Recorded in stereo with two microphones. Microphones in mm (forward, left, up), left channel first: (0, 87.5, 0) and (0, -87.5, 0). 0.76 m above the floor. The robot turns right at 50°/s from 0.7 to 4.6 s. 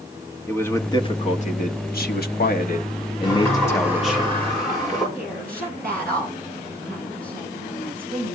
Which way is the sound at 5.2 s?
60° right (ahead or behind).